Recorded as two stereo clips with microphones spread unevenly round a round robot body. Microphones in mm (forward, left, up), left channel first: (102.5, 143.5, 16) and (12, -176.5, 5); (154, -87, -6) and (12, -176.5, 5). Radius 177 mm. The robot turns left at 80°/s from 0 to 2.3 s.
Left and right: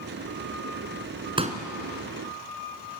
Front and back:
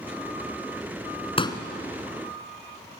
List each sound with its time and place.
1.4 s a pop: 30° right, 1.8 m; by 1.6 s 45° right, 1.8 m